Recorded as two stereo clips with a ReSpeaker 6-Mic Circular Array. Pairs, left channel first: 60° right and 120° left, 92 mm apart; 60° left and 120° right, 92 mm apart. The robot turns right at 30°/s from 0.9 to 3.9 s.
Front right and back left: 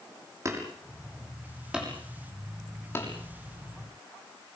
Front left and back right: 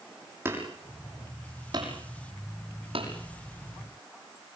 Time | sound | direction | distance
0.5 | hammering | 175° left | 6.5 m